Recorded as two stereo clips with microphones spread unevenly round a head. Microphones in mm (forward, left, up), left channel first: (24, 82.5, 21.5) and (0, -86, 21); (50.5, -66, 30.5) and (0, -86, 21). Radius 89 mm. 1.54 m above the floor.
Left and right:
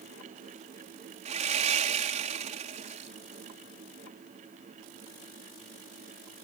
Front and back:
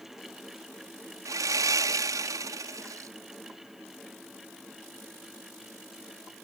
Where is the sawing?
150° right.